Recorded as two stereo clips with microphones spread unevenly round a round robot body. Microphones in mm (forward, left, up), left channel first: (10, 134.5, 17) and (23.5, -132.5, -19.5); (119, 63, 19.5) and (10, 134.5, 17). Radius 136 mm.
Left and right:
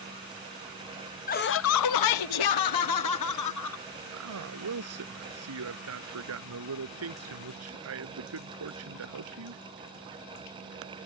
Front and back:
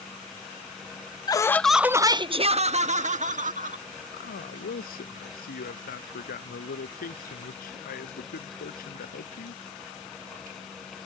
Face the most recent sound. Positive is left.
turn(degrees=-50)